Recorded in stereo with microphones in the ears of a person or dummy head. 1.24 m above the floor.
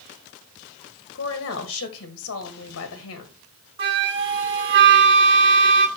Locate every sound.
1.1 s a woman speaking: 65° left (ahead or behind), 1.2 m
3.8 s a flute: 25° right (ahead or behind), 1.0 m